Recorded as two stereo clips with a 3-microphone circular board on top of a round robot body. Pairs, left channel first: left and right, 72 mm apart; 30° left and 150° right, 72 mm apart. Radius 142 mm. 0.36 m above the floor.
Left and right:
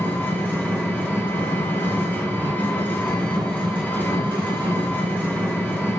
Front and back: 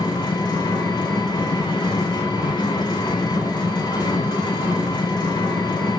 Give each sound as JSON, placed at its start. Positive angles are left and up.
{"t": 0.0, "sound": "an engine running", "azimuth_deg": 20, "distance_m": 3.5}